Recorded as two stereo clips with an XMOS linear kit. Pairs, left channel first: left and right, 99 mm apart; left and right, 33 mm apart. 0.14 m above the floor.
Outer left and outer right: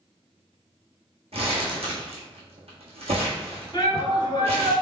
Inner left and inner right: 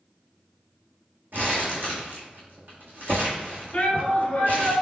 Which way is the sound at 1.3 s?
80° right.